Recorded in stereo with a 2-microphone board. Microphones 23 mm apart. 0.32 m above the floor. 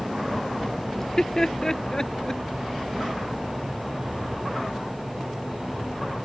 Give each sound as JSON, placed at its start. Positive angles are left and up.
{"t": 1.0, "sound": "laughter", "side_deg": 25}